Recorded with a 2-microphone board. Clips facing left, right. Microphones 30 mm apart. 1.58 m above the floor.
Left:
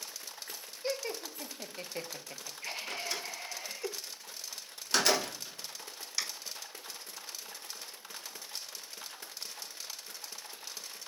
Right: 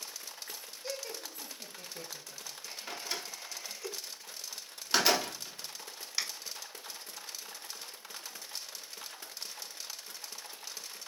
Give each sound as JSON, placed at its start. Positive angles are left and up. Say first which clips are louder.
{"t": 0.8, "sound": "laughter", "louder": "left 5 dB", "side_deg": 35, "distance_m": 3.0}
{"t": 2.9, "sound": "a door slam", "louder": "right 1 dB", "side_deg": -10, "distance_m": 3.5}